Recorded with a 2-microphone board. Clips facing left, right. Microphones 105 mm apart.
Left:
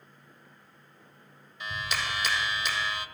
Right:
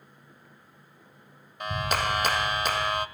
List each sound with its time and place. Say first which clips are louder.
1.6 s a clap: right 6 dB; 50° right (ahead or behind), 1.4 m